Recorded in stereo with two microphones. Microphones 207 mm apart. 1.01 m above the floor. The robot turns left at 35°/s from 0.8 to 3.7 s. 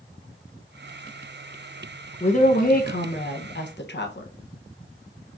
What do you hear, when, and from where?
2.2 s a woman speaking: 140° left, 0.8 m; by 4.3 s 90° left, 0.8 m